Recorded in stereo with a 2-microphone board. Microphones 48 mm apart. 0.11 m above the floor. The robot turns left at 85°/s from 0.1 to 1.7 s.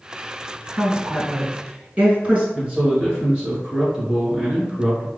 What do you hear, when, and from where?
0.7 s a woman speaking: centre (ahead or behind), 1.5 m; by 2.5 s 20° right (ahead or behind), 1.5 m
2.5 s a man speaking: 20° right (ahead or behind), 1.5 m